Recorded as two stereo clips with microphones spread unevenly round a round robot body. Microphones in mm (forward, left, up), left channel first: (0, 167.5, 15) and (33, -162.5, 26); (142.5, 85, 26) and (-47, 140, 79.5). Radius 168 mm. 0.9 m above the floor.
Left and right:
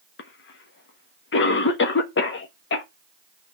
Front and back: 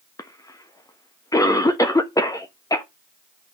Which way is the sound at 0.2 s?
45° left.